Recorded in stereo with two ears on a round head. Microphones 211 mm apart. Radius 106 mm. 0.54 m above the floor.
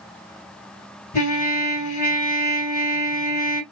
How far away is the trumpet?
About 2.5 m.